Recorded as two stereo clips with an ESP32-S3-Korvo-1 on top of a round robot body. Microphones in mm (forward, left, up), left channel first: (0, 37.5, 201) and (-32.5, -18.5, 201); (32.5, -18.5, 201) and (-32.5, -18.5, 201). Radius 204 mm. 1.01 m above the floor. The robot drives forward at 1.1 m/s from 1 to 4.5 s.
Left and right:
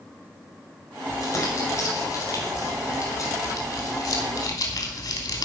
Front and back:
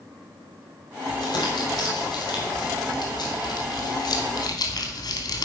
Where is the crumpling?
15° left, 6.5 m; by 5.5 s 35° left, 3 m.